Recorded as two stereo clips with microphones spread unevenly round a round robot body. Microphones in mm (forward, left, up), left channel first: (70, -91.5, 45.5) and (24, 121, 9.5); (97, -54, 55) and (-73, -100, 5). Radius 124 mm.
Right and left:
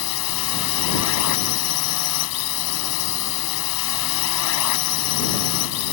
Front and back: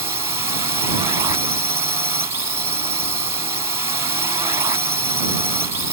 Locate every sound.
0.0 s a drone: 100° right